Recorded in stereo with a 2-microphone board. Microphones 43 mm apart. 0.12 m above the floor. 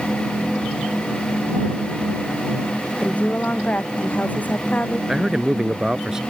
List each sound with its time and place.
3.0 s a woman speaking: 35° left (ahead or behind)
5.1 s a man speaking: 15° right (ahead or behind)